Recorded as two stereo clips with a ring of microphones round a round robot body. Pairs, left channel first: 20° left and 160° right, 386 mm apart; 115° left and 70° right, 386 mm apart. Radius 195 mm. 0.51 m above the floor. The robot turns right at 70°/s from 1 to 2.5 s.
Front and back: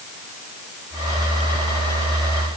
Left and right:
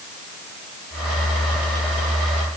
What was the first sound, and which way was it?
Only background noise.